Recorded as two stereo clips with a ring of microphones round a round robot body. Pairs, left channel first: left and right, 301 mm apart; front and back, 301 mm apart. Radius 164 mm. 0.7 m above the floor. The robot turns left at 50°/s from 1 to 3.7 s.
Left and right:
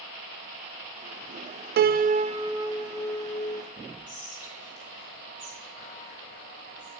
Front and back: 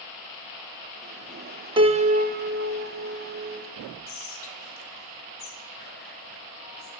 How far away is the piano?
About 0.5 m.